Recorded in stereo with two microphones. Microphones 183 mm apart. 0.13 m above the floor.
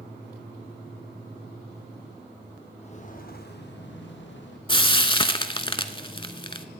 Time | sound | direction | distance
2.8 | footsteps | 35° left (ahead or behind) | 2.0 m
4.7 | frying | 30° left (ahead or behind) | 0.5 m